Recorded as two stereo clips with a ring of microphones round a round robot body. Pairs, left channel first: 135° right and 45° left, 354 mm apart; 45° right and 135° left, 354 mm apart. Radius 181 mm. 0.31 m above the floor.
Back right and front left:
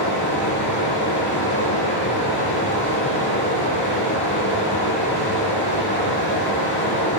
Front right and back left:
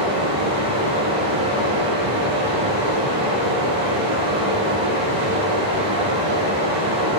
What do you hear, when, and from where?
0.0 s running water: 165° left, 5.5 m